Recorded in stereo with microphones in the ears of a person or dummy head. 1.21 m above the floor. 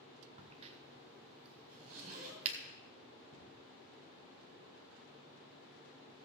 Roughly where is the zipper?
Right.